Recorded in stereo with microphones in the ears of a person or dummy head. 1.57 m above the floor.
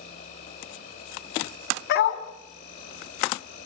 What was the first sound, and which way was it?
An insect, 35° left (ahead or behind).